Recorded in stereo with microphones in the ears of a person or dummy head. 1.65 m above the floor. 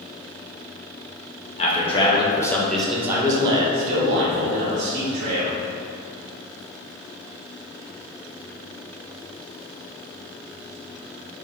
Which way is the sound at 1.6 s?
45° left (ahead or behind).